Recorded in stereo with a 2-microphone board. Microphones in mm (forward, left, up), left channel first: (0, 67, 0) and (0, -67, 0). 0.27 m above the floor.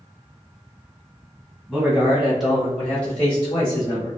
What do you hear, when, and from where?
1.7 s a man speaking: 10° right (ahead or behind), 1.4 m; by 4.1 s 20° left (ahead or behind), 1.5 m